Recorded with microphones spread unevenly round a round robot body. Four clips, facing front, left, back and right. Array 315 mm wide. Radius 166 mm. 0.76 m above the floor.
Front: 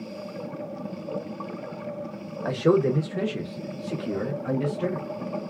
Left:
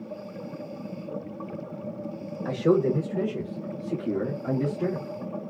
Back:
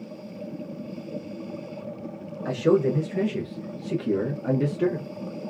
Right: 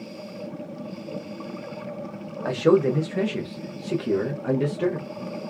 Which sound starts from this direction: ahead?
A man speaking, at 2.5 s.